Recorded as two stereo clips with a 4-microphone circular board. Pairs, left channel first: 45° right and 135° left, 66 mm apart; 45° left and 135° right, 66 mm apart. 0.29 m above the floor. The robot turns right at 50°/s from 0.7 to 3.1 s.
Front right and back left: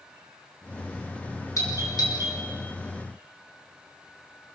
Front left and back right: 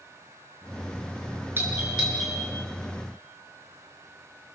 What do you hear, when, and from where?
1.6 s a doorbell: 80° right, 7 m; by 2.4 s 40° right, 7 m